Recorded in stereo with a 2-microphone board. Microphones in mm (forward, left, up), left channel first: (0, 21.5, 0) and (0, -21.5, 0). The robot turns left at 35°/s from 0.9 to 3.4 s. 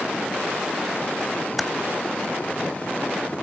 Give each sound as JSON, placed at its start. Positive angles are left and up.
{"t": 1.6, "sound": "typing on a keyboard", "side_deg": -5, "distance_m": 0.9}